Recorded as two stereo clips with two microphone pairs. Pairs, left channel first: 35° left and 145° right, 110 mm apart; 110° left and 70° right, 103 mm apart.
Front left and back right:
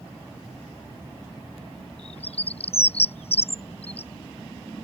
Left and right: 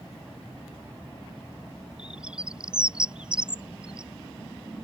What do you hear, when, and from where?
2.0 s a bird: 10° left